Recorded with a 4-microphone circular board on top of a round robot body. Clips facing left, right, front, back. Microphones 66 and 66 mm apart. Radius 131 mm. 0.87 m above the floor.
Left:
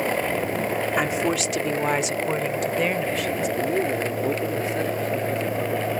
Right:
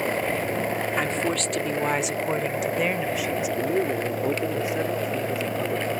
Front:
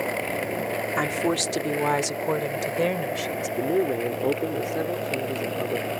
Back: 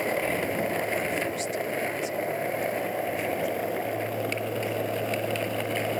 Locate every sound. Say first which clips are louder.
1.0 s a woman speaking: left 3 dB, front 4 dB; 10° left; by 3.5 s 10° right
3.6 s a man speaking: even, front 5 dB; 10° right